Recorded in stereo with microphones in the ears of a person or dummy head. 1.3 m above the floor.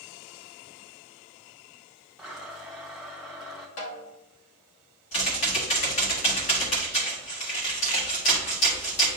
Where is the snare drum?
40° left (ahead or behind), 1.0 m.